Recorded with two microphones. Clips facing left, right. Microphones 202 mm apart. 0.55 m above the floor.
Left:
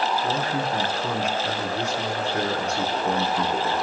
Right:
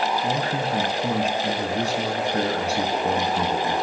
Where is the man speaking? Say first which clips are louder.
Right 1 dB; 35° right (ahead or behind), 5 m.